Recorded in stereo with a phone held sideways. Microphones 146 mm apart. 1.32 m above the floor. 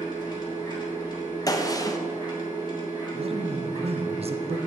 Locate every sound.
0.0 s a machine running: 30° left (ahead or behind), 1.5 m
1.5 s a gunshot: 25° left (ahead or behind), 0.5 m
3.1 s a man speaking: 45° right (ahead or behind), 0.6 m